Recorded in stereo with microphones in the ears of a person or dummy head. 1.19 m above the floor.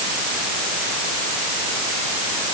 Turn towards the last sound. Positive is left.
No sound to turn to.